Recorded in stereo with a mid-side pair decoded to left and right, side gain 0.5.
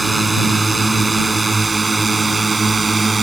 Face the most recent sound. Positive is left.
turn(degrees=-20)